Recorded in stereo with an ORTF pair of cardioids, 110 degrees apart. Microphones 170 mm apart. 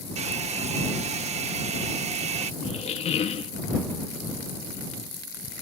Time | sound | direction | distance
0.2 | a hair dryer | 40° right | ?
2.6 | a squeak | 40° left | ?